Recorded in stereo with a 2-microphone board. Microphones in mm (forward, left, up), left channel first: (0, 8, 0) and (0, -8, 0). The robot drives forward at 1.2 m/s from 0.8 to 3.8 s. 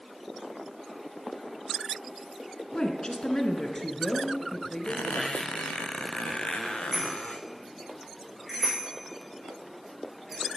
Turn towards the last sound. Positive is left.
turn(degrees=-10)  # may be behind; listen again after turning